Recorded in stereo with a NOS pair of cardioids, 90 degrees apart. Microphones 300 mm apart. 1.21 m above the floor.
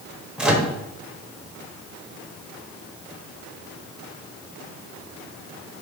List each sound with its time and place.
0.4 s a microwave: 5° right, 0.7 m